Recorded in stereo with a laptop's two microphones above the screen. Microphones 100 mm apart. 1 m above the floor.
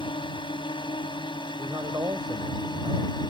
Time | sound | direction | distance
0.0 | a drone | 55° left (ahead or behind) | ?
1.6 | a man speaking | 45° right (ahead or behind) | ?